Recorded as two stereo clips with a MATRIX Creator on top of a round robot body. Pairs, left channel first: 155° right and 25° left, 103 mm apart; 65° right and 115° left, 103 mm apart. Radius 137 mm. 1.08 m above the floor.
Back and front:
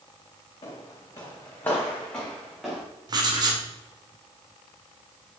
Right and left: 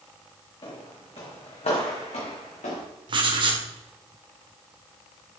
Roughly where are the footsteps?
Right.